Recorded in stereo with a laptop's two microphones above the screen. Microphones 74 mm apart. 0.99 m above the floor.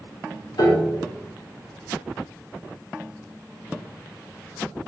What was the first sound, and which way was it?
A piano, 70° left (ahead or behind).